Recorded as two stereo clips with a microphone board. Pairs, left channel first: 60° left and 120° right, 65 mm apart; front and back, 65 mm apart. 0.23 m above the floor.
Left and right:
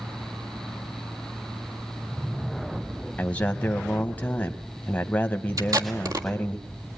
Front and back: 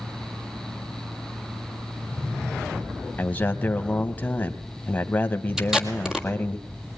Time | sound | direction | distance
3.2 | a man speaking | 25° left | 1.0 m
5.6 | tape being pulled | 100° right | 1.7 m